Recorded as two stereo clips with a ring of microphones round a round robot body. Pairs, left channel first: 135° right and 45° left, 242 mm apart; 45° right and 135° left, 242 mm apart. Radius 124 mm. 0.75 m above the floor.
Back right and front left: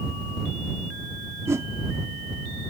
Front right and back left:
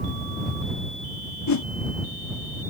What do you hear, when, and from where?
1.5 s a whoosh: 35° right